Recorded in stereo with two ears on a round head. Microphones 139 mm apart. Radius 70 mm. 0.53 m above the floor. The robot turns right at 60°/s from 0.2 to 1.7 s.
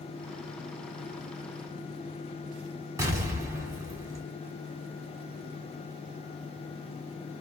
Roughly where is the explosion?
Right.